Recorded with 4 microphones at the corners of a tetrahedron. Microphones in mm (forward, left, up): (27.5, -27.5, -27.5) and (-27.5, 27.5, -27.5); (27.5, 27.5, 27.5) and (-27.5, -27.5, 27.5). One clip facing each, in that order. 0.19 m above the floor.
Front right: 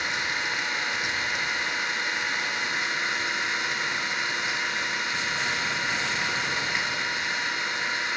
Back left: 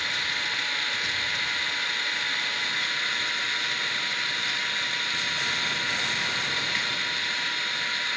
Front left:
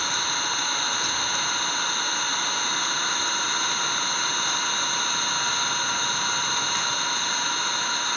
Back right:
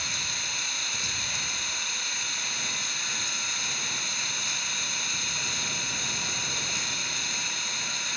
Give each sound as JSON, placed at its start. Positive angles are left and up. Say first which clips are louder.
{"t": 0.0, "sound": "an engine running", "louder": "front right 2 dB, front left 9 dB", "azimuth_deg": 25, "distance_m": 1.1}